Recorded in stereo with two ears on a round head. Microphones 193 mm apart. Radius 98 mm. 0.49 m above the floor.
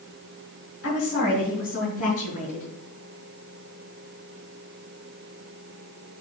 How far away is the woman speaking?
About 3 m.